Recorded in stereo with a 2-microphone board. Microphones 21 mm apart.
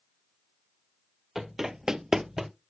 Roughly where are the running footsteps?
Right.